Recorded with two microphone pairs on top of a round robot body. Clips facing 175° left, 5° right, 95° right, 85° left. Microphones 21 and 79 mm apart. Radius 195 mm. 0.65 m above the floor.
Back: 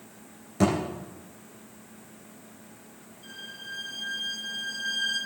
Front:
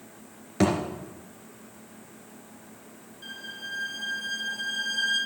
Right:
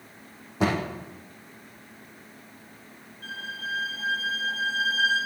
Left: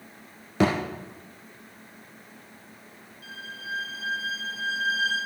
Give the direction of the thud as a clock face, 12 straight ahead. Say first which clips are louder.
Front 1 dB, left 2 dB; 10 o'clock.